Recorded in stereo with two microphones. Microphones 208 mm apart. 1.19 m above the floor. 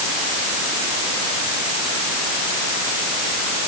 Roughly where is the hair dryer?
No hair dryer in this recording.